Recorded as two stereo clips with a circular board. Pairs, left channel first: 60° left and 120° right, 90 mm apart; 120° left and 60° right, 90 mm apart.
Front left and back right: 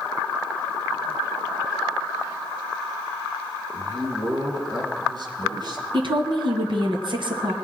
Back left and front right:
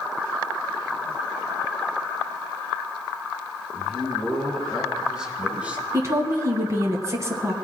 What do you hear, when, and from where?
3.7 s a man speaking: 155° right, 3 m; by 5.8 s 130° right, 2 m
5.9 s a woman speaking: 115° right, 2 m